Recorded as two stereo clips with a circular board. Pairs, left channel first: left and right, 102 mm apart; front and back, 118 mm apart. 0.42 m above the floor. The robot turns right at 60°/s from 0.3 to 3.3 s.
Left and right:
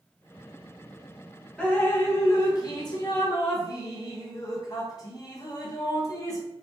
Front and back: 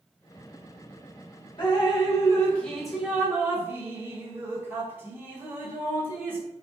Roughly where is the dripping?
Ahead.